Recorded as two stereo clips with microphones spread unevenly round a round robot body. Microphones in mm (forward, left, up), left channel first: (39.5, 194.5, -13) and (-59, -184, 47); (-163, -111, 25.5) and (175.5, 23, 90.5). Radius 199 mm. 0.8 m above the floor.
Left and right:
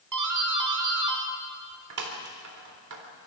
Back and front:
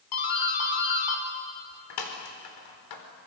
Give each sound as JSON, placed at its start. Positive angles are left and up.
{"t": 0.1, "sound": "a doorbell", "azimuth_deg": -150, "distance_m": 4.0}